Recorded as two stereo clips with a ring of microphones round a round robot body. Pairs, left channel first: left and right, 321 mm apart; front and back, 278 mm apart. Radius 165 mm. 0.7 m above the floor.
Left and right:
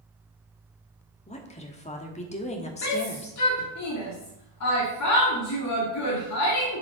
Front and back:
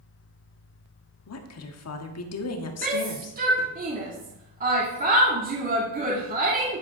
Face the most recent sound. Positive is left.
turn(degrees=125)